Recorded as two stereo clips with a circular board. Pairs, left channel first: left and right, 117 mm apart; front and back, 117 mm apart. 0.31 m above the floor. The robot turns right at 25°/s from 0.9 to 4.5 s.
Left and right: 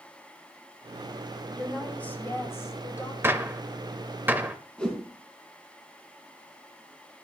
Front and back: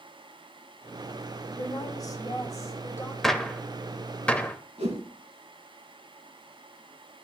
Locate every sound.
1.6 s a woman speaking: 10° left, 1.5 m; by 3.1 s 50° left, 1.5 m
3.2 s a gunshot: 80° right, 0.7 m; by 4.6 s 50° right, 0.7 m
4.8 s a whoosh: 170° left, 2.5 m